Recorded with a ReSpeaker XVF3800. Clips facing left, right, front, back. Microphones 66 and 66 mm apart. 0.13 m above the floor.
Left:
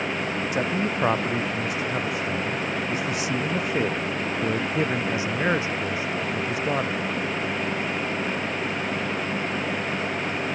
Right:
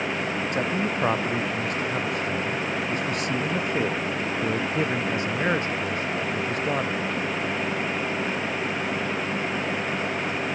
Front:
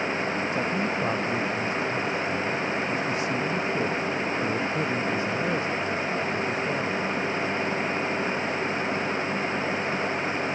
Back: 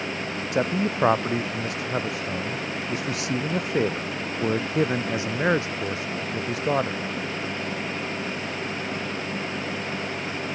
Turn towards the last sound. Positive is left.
turn(degrees=175)